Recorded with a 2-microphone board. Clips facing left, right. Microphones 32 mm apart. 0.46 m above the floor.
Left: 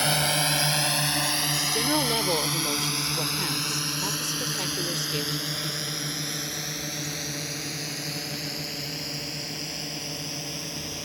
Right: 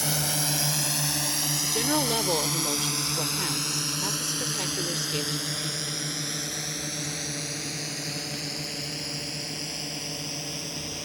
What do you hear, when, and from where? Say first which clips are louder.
0.0 s a drone: left 5 dB; 40° left (ahead or behind); by 11.1 s 5° left (ahead or behind)
1.6 s a woman speaking: right 1 dB; 5° left (ahead or behind)